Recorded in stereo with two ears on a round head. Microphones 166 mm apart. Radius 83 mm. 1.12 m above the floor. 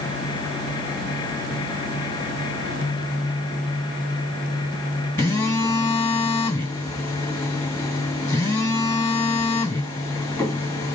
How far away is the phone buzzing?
About 2 m.